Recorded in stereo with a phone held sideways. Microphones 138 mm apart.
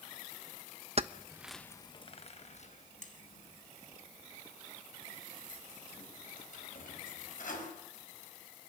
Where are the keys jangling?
50° right (ahead or behind), 0.7 m; by 7.7 s 75° left (ahead or behind), 6 m.